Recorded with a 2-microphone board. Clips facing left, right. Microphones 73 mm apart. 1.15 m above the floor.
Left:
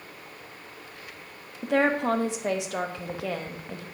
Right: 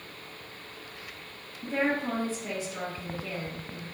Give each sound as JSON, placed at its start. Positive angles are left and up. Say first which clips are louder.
{"t": 1.6, "sound": "a woman speaking", "louder": "left 5 dB", "side_deg": 75, "distance_m": 1.1}